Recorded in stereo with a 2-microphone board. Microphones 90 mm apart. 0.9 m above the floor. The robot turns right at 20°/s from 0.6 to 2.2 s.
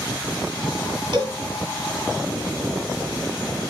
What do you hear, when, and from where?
1.1 s a cowbell: 60° right (ahead or behind), 1.2 m